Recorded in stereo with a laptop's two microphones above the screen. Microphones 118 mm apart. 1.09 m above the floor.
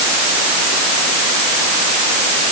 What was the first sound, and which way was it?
Only background noise.